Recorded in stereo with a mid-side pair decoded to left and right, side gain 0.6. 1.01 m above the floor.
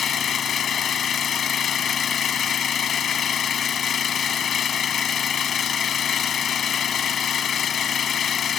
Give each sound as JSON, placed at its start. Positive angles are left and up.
{"t": 0.0, "sound": "an engine running", "azimuth_deg": 40}